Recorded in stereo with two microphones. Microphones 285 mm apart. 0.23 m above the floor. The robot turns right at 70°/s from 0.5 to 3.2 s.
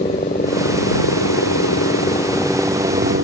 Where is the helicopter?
30° left (ahead or behind); by 3.2 s 45° right (ahead or behind).